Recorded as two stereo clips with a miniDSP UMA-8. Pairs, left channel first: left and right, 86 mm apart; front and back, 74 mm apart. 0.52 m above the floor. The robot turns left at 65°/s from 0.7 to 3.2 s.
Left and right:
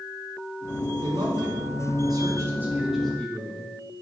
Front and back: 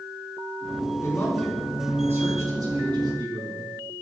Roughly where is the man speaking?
Ahead right.